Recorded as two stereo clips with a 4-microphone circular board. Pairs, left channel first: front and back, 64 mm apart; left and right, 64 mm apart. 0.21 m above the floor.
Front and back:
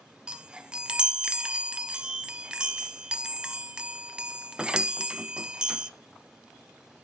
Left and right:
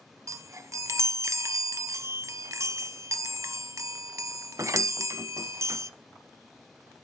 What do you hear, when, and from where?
0.3 s a chime: 105° right, 0.5 m